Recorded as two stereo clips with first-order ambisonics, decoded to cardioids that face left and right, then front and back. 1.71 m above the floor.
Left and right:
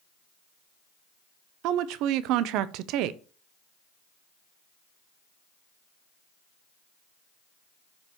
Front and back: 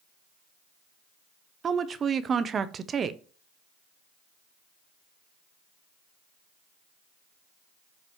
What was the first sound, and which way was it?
A woman speaking, 115° right.